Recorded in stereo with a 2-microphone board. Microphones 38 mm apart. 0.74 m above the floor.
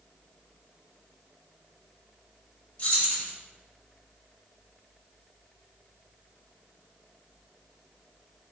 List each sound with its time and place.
2.8 s keys jangling: 35° left (ahead or behind), 1.1 m